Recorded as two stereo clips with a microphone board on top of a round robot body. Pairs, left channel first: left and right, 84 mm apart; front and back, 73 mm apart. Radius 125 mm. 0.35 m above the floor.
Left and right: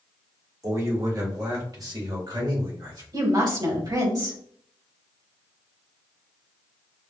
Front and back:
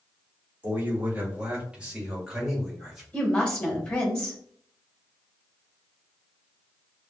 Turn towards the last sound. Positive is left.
turn(degrees=-75)